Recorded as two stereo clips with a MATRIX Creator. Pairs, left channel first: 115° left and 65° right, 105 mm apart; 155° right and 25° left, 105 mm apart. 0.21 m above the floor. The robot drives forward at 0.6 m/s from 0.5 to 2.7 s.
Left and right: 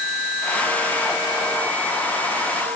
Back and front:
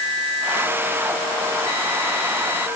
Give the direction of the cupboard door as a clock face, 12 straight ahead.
I don't hear a cupboard door.